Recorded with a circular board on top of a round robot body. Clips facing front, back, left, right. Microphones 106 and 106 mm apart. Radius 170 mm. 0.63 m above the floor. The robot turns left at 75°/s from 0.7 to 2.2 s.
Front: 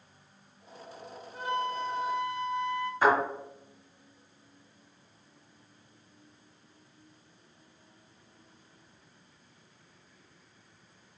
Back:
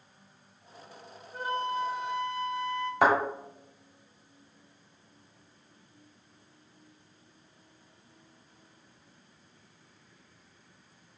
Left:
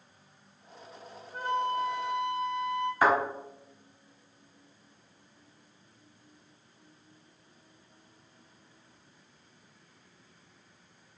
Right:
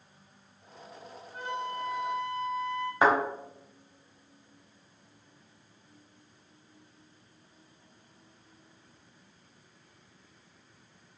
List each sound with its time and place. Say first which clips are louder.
1.3 s a flute: back 1 dB, left 6 dB; 140° left, 0.8 m; by 2.9 s 75° left, 0.8 m
3.0 s a thud: back 1 dB, right 1 dB; 160° right, 1.7 m